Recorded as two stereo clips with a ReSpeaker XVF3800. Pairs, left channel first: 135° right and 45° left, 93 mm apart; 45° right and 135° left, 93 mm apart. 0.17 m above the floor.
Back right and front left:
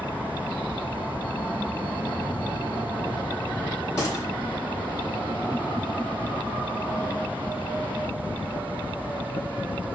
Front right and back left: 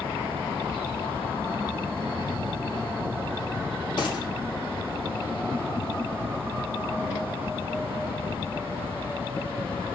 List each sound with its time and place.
4.0 s a gunshot: 85° right, 2 m